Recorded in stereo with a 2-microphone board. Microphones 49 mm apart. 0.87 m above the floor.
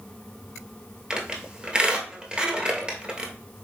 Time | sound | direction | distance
1.1 | a squeak | 20° right (ahead or behind) | 1.1 m